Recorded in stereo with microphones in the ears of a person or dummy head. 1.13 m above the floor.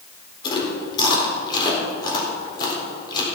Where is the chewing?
25° left (ahead or behind), 4 m.